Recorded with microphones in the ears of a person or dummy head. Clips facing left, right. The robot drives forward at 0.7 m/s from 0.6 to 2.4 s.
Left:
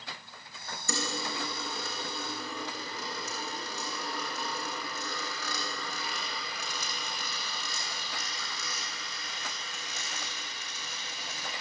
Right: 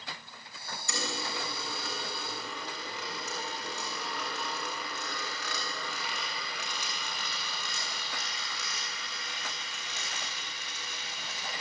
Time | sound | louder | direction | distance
0.9 | a dropped coin | left 2 dB | 40° left (ahead or behind) | 6 m